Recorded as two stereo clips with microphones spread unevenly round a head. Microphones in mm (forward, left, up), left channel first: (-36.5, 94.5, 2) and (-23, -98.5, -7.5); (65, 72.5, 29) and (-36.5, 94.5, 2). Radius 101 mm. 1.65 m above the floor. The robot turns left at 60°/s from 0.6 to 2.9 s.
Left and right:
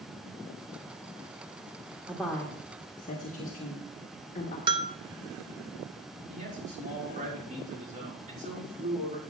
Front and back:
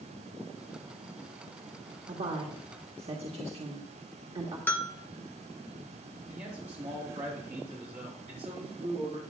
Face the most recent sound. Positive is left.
turn(degrees=-135)